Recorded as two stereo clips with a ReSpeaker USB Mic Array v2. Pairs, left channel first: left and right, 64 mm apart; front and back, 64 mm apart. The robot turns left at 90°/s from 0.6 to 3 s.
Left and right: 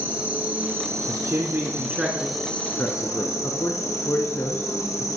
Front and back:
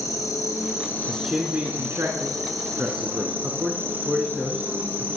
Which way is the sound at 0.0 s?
25° right.